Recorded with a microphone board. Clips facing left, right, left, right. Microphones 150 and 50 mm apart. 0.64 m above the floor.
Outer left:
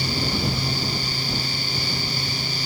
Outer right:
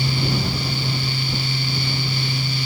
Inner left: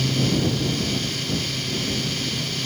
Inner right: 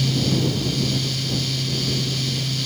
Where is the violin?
No violin in this recording.